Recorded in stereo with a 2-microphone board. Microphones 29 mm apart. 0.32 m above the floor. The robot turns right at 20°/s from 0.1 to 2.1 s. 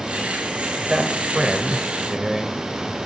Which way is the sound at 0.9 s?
25° right (ahead or behind).